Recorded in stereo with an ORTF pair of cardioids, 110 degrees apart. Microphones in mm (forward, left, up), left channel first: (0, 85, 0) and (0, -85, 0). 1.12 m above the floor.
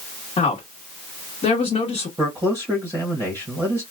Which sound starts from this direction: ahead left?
A woman speaking, at 0.4 s.